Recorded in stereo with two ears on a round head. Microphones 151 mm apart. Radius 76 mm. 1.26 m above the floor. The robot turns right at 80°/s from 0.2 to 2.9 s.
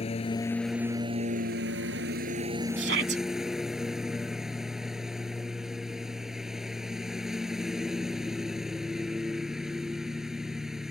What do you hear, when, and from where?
0.0 s a lawn mower: 140° left; by 10.9 s straight ahead
2.8 s a shout: 80° right; by 3.2 s 70° right (ahead or behind)